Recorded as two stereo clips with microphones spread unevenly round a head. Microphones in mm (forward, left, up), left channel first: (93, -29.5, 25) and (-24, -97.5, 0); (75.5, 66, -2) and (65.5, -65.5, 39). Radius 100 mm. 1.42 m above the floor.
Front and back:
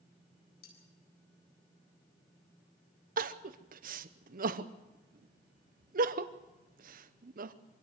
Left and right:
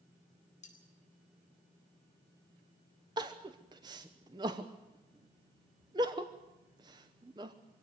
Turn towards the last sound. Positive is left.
turn(degrees=-165)